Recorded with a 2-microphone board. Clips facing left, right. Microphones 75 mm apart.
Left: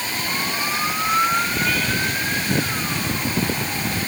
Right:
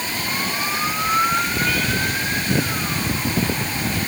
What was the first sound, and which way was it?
Only background noise.